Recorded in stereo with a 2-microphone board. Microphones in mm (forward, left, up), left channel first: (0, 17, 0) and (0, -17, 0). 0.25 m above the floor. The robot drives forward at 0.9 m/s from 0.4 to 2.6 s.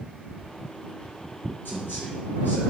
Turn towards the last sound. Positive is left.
turn(degrees=75)  # may be behind; listen again after turning